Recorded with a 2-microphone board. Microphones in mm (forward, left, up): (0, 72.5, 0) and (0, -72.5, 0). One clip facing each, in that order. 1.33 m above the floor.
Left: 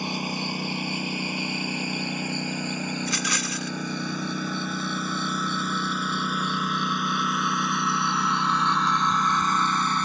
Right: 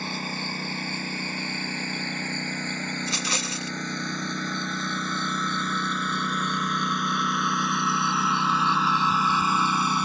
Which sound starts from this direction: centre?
A lawn mower, at 0.0 s.